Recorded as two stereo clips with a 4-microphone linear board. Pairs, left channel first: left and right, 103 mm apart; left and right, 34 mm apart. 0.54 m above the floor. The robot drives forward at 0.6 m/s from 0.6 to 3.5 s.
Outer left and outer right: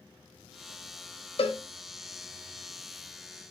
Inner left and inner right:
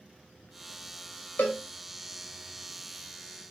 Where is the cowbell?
65° left (ahead or behind), 1.7 m; by 1.6 s 70° left (ahead or behind), 1.7 m.